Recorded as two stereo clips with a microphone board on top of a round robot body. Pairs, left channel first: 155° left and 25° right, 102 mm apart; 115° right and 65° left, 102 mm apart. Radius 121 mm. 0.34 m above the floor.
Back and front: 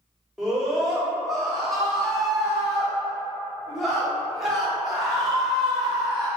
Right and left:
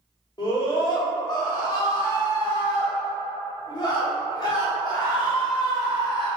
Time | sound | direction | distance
0.4 | a scream | 110° right | 1.1 m